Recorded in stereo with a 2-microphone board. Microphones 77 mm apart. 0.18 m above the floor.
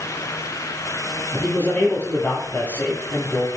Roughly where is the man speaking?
Left.